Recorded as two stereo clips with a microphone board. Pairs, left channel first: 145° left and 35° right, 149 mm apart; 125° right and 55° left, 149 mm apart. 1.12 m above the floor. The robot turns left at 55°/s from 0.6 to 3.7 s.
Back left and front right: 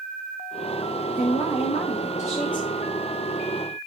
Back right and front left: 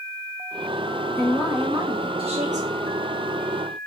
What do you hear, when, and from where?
1.1 s a woman speaking: 165° left, 1.6 m; by 2.9 s 70° left, 1.6 m